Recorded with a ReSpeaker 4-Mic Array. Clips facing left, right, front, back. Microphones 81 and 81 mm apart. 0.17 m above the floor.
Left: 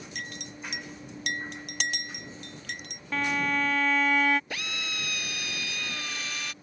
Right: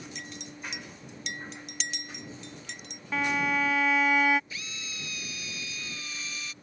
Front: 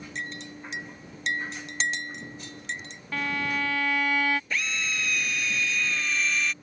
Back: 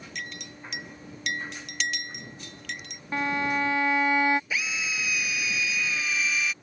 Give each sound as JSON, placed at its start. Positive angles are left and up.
{"t": 0.1, "sound": "a clink", "azimuth_deg": 60}
{"t": 3.1, "sound": "a violin", "azimuth_deg": -165}
{"t": 4.5, "sound": "a drill", "azimuth_deg": 95}